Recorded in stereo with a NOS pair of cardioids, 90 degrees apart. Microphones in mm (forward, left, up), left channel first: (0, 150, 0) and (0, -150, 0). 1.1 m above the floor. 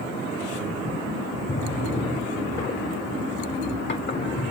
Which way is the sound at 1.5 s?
40° left.